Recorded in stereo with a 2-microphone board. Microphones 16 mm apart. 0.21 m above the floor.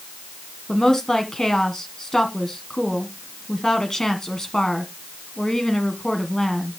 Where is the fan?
I don't hear a fan.